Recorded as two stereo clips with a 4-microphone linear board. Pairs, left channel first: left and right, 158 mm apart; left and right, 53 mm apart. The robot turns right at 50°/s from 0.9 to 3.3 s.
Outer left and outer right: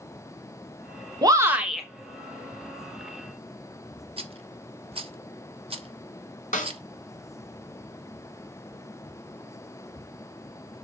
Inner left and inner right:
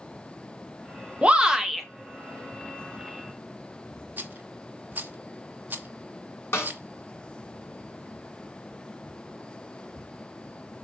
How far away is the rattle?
About 1.1 m.